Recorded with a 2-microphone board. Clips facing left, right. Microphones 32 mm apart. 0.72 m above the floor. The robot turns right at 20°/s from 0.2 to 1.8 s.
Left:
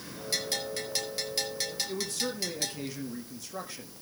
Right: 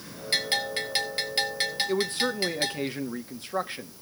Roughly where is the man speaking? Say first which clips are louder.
Right 7 dB; right.